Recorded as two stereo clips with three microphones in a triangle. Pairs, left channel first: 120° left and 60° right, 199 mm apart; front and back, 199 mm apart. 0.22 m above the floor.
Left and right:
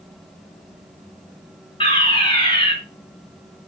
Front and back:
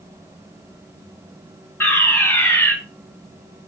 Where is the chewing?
No chewing in this recording.